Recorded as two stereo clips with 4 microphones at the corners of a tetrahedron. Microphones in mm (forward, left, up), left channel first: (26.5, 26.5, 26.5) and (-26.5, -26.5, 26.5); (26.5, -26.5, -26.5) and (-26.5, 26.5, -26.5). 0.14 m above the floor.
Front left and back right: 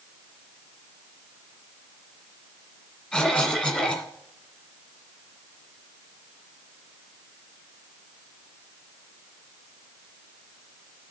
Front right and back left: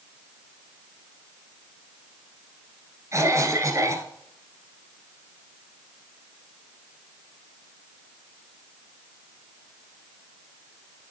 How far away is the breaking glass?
No breaking glass in this recording.